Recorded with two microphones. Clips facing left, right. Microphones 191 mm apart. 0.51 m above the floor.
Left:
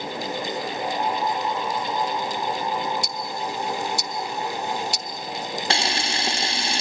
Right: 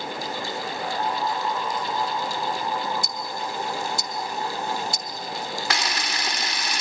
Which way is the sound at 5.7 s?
30° left (ahead or behind).